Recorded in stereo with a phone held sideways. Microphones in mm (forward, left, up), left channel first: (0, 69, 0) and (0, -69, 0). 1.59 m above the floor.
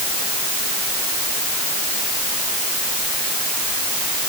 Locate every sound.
Only background noise.